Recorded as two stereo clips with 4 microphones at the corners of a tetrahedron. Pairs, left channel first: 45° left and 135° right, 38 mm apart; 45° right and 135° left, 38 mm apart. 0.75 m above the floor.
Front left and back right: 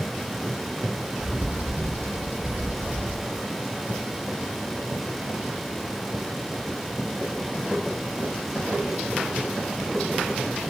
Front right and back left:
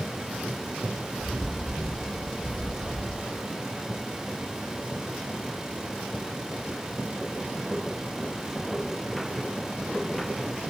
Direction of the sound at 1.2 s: 120° right.